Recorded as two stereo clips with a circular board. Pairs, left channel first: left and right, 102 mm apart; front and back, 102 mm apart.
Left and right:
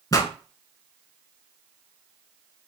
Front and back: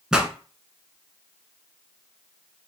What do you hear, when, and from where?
0.1 s a pop: 105° left, 0.7 m